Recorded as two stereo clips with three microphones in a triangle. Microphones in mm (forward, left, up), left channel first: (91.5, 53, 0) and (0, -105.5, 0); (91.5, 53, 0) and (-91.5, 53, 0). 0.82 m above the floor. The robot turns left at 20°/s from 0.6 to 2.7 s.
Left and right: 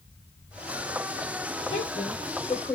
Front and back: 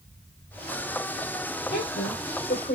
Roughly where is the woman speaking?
Ahead.